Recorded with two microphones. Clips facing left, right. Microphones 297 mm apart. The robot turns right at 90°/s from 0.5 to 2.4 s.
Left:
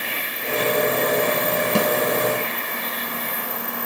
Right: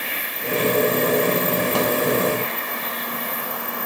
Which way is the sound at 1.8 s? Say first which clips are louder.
Left 2 dB; 35° left (ahead or behind).